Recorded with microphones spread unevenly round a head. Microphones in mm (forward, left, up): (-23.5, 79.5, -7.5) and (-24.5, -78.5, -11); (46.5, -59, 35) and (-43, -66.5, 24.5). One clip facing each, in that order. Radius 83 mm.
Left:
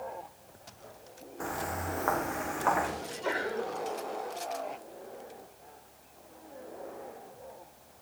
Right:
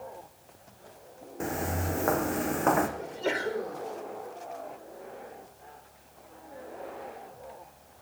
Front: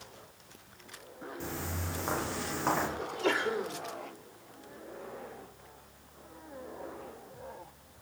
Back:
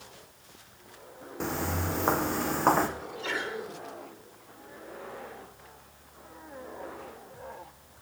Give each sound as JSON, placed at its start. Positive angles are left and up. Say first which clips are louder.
{"t": 1.4, "sound": "footsteps", "louder": "right 4 dB, back 9 dB", "azimuth_deg": -150, "distance_m": 3.0}
{"t": 3.0, "sound": "a sneeze", "louder": "right 3 dB, front 4 dB", "azimuth_deg": -30, "distance_m": 3.5}